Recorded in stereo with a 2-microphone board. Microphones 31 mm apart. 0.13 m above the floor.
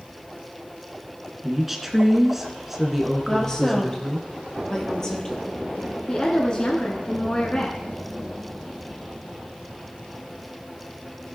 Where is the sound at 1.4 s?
10° right (ahead or behind), 1.5 m.